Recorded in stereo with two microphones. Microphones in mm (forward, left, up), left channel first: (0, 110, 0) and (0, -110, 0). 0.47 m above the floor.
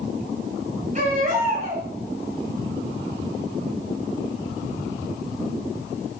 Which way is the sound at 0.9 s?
35° right (ahead or behind).